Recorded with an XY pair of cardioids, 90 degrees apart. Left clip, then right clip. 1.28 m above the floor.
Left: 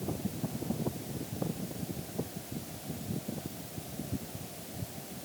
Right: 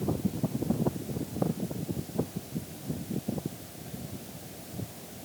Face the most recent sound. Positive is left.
No sound to turn to.